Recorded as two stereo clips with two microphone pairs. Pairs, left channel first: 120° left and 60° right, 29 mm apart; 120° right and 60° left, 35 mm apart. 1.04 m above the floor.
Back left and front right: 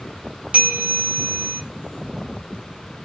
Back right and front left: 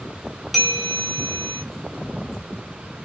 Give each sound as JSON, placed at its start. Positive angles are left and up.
{"t": 0.5, "sound": "a bell", "azimuth_deg": -30, "distance_m": 0.8}